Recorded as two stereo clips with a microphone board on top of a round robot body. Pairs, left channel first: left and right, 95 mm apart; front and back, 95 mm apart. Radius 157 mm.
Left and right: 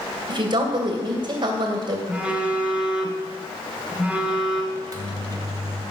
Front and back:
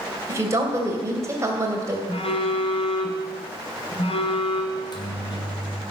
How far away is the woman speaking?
About 3 m.